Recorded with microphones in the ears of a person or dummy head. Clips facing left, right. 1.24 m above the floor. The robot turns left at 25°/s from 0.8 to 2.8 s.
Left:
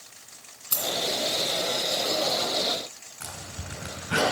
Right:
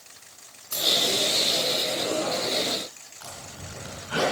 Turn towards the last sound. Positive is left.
turn(degrees=35)  # may be behind; listen again after turning